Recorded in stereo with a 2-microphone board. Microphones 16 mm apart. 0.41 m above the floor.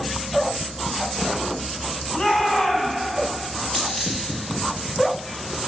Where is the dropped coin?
65° left (ahead or behind), 4 m.